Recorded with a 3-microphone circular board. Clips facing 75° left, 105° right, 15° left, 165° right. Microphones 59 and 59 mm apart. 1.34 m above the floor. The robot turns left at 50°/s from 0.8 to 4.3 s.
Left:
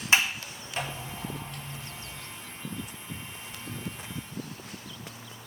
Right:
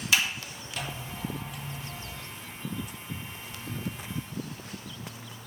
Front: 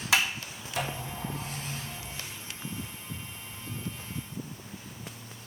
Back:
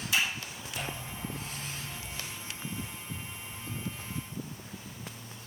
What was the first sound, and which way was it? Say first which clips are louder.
A sliding door: left 3 dB, front 4 dB; 20° left.